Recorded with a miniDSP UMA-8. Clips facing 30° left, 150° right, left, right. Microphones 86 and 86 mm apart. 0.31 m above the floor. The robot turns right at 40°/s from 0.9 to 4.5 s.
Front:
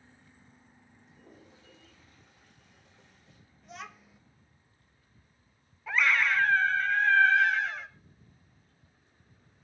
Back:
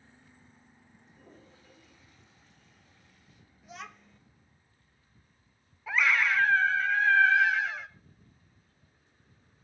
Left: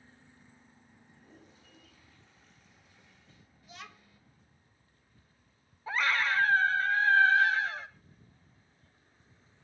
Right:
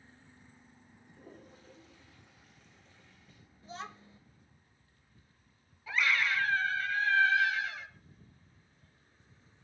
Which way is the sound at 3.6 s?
65° right.